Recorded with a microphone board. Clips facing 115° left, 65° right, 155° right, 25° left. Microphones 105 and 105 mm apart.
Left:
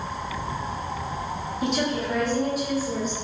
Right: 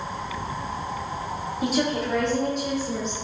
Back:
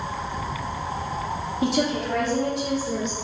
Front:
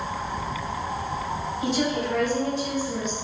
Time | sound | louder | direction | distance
1.6 | a woman speaking | right 1 dB, back 2 dB | 150° right | 1.1 m